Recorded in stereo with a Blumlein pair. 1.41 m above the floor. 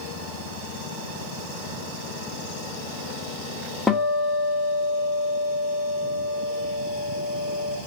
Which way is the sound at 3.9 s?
10° left.